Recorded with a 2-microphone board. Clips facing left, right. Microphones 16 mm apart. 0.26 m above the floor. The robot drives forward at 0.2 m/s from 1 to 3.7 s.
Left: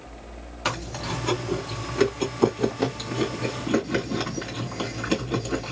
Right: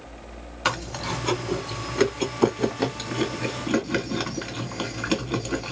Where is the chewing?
15° right (ahead or behind), 1.7 m.